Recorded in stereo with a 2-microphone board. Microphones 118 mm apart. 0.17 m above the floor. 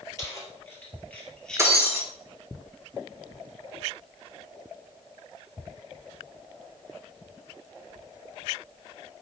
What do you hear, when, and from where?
0.2 s keys jangling: 25° left (ahead or behind), 2 m; by 1.7 s 5° left (ahead or behind), 2.5 m
1.6 s breaking glass: 25° right (ahead or behind), 1.9 m